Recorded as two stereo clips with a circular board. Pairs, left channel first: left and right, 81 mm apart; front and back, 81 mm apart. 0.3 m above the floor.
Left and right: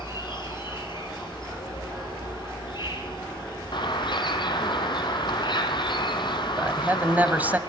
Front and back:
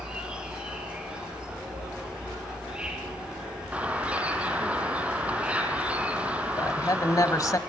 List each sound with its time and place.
0.0 s an insect: 100° left, 6.5 m
3.7 s a bird: 105° left, 2 m
6.6 s a man speaking: 25° right, 1.3 m